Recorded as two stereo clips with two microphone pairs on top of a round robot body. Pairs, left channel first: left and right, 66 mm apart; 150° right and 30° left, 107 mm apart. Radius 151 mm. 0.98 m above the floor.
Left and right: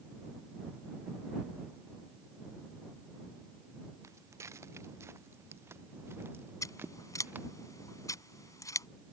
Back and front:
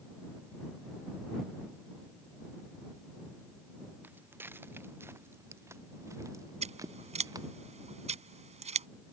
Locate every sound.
4.0 s footsteps: 40° right; by 7.5 s 25° right
6.6 s scissors: 50° left